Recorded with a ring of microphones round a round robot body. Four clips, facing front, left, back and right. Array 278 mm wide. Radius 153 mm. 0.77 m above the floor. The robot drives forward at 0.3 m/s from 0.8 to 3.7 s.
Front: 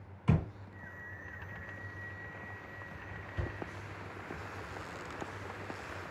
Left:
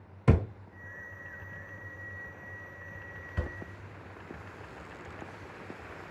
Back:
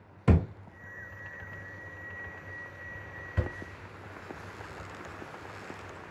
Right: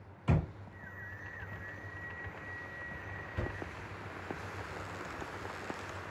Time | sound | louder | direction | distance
0.3 | a thud | left 6 dB, back 6 dB | 130° left | 0.7 m